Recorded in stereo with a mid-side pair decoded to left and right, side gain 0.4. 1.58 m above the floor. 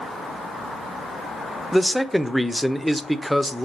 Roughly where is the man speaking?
Ahead.